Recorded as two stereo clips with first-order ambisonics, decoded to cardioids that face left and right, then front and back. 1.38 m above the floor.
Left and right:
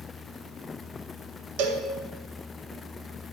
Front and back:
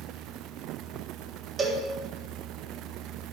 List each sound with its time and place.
1.6 s a cowbell: 100° right, 1.5 m